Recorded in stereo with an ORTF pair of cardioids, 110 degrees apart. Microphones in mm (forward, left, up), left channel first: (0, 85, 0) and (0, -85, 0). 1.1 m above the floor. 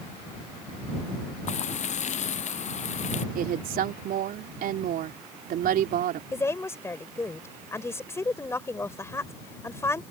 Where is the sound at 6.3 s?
15° left.